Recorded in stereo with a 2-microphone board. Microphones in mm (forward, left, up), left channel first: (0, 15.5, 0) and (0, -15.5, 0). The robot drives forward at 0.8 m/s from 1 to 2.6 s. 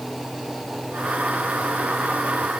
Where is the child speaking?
I don't hear a child speaking.